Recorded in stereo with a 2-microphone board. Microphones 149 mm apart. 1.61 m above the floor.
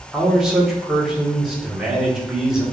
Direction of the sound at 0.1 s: 5° right (ahead or behind).